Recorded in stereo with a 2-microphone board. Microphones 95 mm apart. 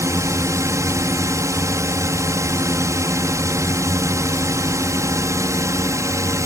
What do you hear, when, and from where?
0.0 s a drone: 30° right (ahead or behind)